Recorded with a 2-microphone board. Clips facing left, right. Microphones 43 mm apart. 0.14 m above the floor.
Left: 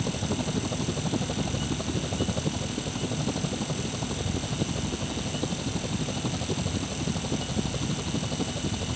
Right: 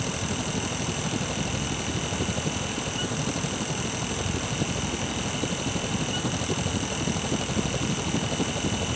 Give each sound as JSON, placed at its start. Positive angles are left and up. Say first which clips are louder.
{"t": 0.0, "sound": "a helicopter", "louder": "even", "side_deg": 15}